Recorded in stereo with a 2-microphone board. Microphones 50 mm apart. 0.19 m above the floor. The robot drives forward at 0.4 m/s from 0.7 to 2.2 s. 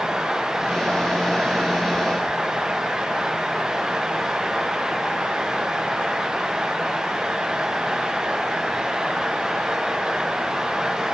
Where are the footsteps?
I don't hear footsteps.